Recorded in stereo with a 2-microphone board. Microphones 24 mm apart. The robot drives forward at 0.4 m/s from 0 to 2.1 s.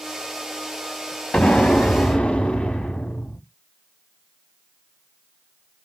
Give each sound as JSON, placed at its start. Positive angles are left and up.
{"t": 1.3, "sound": "an explosion", "side_deg": 70, "distance_m": 0.7}